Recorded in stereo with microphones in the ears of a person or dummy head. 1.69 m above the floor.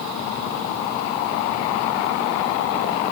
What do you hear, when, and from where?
Only background noise.